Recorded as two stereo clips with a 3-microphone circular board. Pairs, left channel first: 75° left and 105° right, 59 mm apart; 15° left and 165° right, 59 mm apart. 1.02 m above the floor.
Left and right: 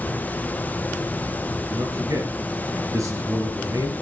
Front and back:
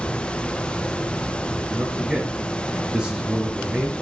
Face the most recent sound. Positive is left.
turn(degrees=-95)